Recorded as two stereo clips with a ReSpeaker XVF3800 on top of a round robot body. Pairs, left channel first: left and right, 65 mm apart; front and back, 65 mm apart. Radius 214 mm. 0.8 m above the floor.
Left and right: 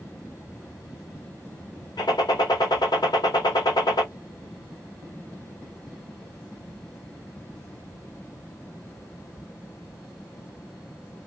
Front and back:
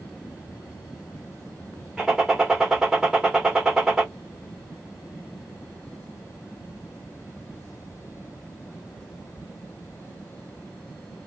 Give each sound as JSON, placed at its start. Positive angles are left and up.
{"t": 2.0, "sound": "a gunshot", "azimuth_deg": 100, "distance_m": 1.0}